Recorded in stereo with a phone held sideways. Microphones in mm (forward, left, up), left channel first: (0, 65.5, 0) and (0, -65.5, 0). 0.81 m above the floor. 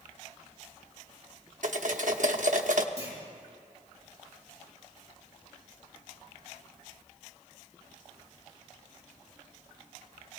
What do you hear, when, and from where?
1.6 s cutlery clinking: 65° right (ahead or behind), 0.9 m
3.0 s a clunk: 45° left (ahead or behind), 5.5 m